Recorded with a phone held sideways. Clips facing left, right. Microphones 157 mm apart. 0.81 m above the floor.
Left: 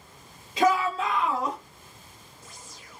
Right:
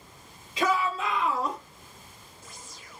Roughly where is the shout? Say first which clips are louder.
Left 4 dB; left.